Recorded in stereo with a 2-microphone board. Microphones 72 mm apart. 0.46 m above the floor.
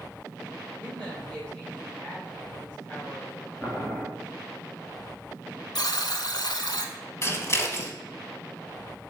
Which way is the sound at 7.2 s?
40° left (ahead or behind).